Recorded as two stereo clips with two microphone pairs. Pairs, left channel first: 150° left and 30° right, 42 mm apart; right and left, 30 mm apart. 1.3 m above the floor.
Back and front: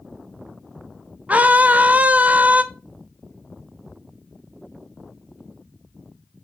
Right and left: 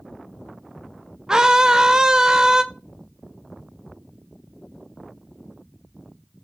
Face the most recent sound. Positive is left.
turn(degrees=20)